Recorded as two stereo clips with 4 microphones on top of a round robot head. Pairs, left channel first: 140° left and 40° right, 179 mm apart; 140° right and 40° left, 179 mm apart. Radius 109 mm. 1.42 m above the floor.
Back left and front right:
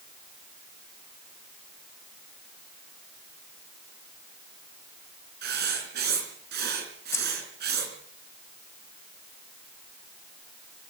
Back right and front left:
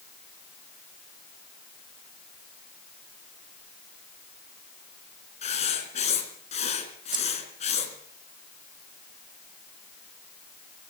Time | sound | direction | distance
5.4 | writing | 85° right | 5 m
7.1 | keys jangling | 80° left | 0.6 m